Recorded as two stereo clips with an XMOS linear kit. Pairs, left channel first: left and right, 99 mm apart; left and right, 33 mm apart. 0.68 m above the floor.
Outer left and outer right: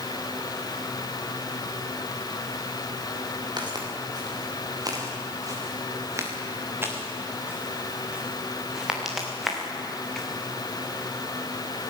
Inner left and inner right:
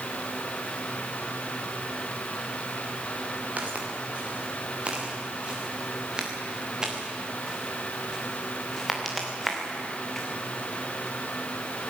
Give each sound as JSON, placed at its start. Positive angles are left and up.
{"t": 3.6, "sound": "footsteps", "side_deg": -45, "distance_m": 6.5}